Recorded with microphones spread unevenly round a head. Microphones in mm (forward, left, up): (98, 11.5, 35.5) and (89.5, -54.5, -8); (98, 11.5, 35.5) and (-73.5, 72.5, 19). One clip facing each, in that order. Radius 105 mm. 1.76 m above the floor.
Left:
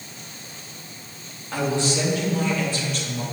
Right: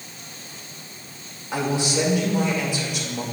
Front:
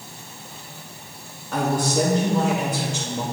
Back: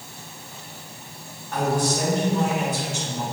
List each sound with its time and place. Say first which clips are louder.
1.5 s a man speaking: even, front 1 dB; 10° right, 2.5 m